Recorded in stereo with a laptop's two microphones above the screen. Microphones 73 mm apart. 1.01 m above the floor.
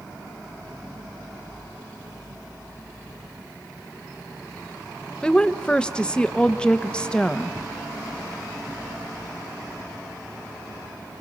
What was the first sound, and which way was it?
A woman speaking, 15° left (ahead or behind).